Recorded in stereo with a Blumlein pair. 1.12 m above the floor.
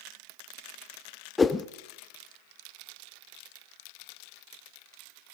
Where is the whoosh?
15° left, 0.6 m.